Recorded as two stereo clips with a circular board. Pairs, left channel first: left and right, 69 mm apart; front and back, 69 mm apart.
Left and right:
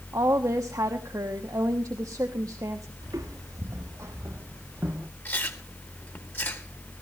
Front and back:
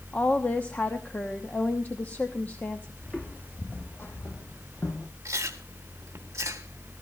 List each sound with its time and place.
0.1 s a woman speaking: 60° right, 1.0 m
3.0 s footsteps: 65° right, 2.5 m; by 5.1 s 30° right, 2 m
5.2 s chewing: 145° left, 2.0 m